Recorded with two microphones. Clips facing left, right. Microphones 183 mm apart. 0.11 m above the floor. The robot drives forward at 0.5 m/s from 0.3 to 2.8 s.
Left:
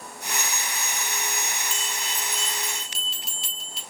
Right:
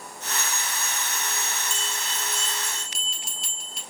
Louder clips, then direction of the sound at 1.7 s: Even; centre (ahead or behind).